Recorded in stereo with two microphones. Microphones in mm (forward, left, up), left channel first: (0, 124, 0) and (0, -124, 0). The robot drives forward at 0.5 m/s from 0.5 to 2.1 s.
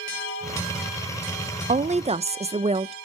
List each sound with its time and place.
1.7 s a woman speaking: 30° right (ahead or behind), 0.5 m; by 2.9 s 25° right (ahead or behind), 0.6 m